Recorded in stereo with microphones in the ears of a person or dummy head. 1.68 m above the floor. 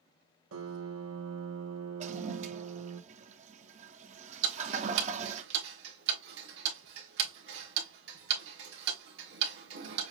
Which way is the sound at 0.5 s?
75° right (ahead or behind).